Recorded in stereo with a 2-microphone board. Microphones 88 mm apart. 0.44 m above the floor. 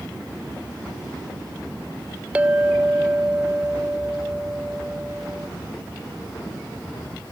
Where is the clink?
15° right (ahead or behind).